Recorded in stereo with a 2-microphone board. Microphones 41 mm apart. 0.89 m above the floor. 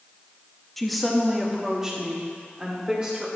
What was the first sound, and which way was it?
A woman speaking, 5° left (ahead or behind).